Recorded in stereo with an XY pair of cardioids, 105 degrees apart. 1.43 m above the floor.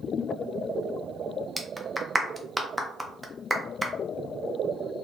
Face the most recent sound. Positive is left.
turn(degrees=-10)